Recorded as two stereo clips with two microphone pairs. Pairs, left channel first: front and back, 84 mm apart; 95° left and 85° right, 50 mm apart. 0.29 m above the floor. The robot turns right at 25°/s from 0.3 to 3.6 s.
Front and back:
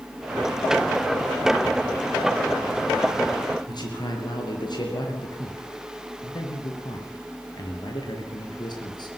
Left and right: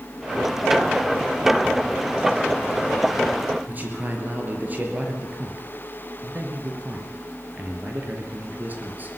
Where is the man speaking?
30° right, 5 m.